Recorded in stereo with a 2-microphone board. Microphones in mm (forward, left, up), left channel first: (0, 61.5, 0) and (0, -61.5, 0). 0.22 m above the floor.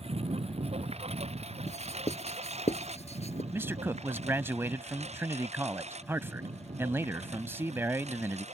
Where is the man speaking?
20° right (ahead or behind).